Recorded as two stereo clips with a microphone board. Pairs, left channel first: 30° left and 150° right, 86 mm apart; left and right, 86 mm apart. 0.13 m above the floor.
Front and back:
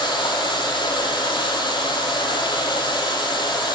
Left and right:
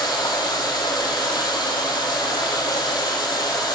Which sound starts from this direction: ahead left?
Running water, at 0.0 s.